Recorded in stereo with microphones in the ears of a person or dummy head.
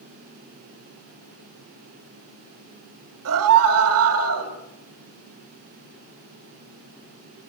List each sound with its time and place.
3.2 s a scream: 85° right, 5.5 m